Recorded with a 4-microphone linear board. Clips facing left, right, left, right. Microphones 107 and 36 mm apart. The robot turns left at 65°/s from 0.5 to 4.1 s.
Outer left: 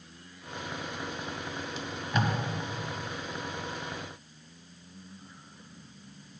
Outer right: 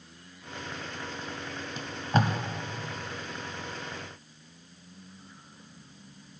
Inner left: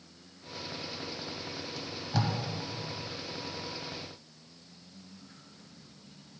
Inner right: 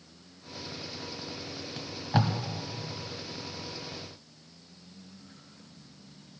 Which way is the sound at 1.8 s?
50° right (ahead or behind).